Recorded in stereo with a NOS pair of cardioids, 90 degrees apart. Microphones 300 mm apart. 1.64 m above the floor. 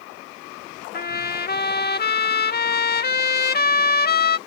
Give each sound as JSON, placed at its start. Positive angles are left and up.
{"t": 0.9, "sound": "a trumpet", "azimuth_deg": 30}